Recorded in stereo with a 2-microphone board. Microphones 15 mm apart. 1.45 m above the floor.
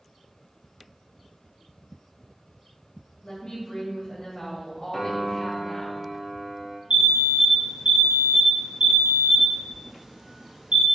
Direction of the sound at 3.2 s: 65° left (ahead or behind).